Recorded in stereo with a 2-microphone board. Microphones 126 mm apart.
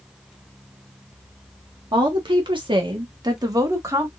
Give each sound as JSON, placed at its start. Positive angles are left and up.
{"t": 1.9, "sound": "a woman speaking", "side_deg": -40, "distance_m": 1.5}